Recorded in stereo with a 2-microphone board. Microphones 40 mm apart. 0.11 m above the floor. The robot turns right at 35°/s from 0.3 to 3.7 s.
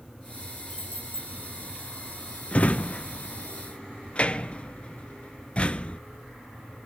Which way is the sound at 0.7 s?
50° left (ahead or behind).